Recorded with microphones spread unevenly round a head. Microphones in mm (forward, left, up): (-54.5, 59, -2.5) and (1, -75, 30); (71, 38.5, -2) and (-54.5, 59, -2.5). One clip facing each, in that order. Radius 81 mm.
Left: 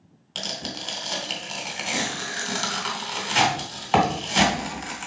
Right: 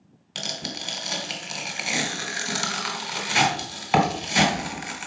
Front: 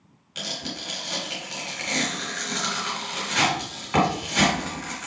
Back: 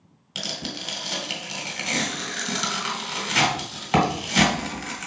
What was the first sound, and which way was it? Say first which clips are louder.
Tearing paper: left 1 dB, back 1 dB; 150° right.